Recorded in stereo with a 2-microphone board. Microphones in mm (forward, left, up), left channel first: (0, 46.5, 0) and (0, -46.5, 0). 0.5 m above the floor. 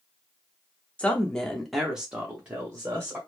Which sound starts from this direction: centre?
A woman speaking, at 1.0 s.